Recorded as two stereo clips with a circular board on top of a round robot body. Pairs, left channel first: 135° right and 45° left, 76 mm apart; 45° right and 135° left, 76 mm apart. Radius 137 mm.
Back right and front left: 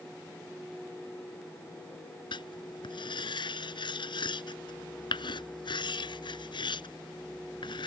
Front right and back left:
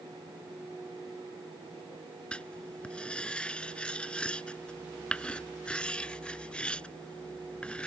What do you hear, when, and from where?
2.3 s writing: 120° right